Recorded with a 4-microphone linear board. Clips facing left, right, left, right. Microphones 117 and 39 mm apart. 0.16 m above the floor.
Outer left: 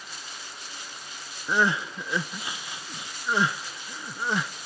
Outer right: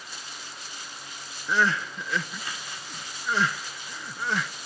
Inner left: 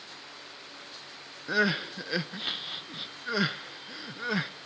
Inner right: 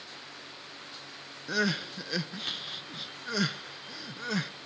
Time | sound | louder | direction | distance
1.5 | crying | outer left 1 dB, inner left 3 dB | 15° left (ahead or behind) | 0.5 m